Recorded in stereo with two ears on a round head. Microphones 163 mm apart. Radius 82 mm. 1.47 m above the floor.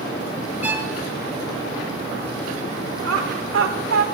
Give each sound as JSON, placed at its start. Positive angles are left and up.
{"t": 0.6, "sound": "a violin", "side_deg": -10, "distance_m": 2.0}
{"t": 3.0, "sound": "laughter", "side_deg": -85, "distance_m": 4.0}